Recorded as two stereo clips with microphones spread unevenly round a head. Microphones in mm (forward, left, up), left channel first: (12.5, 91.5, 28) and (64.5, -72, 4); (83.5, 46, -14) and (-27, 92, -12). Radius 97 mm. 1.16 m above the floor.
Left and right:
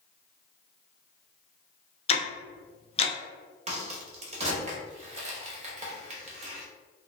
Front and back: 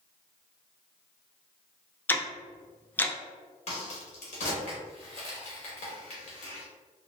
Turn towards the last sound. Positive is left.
turn(degrees=-40)